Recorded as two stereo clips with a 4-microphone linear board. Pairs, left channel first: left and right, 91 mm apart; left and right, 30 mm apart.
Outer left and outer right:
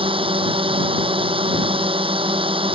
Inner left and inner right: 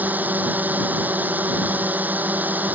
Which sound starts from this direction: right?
A drone, at 0.0 s.